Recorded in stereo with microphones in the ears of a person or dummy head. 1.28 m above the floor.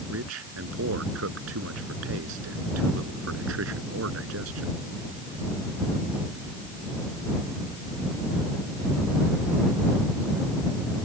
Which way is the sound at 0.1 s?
75° right (ahead or behind).